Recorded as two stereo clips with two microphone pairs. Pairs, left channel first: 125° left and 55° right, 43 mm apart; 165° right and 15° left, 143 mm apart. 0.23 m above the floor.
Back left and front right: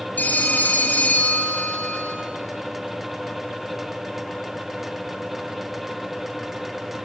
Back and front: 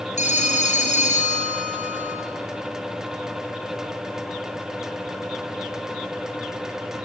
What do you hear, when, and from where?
0.2 s a phone ringing: 170° left, 3.5 m